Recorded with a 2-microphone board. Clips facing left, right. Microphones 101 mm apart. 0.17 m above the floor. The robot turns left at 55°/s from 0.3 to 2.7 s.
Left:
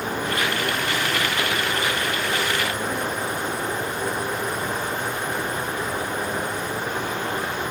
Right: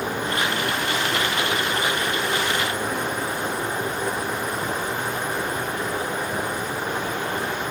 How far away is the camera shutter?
No camera shutter in this recording.